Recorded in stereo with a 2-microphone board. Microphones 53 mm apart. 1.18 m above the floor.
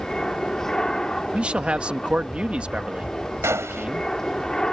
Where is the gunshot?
60° right (ahead or behind).